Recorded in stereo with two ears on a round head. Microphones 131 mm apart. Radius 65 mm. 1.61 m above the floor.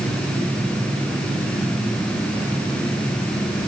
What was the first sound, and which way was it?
Only background noise.